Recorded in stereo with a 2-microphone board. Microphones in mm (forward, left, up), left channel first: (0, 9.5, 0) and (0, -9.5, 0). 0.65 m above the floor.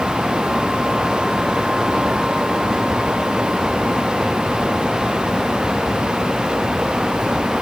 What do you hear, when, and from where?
Only background noise.